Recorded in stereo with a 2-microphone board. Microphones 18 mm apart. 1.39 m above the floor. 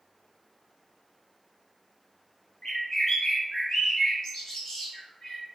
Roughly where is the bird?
Left.